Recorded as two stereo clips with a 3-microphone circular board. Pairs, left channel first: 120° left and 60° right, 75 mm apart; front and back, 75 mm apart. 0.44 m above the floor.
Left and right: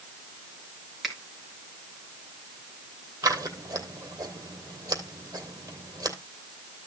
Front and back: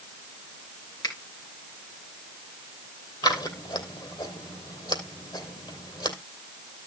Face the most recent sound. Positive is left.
turn(degrees=-20)